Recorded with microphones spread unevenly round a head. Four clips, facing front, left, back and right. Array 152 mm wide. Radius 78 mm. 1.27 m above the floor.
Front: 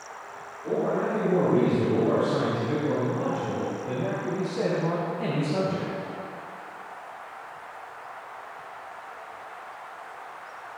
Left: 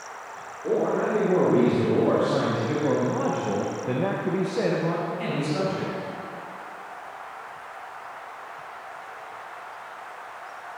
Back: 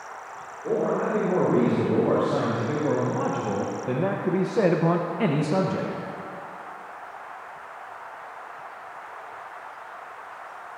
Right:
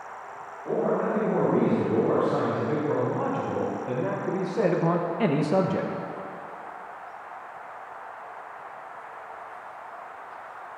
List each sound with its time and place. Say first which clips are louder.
0.6 s a man speaking: left 2 dB, back 2 dB; 105° left, 4 m; by 5.9 s 125° right, 1.1 m